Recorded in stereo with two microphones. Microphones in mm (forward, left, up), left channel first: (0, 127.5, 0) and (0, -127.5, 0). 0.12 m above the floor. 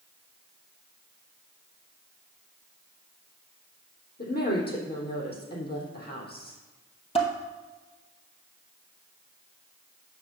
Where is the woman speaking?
40° left (ahead or behind), 4 m.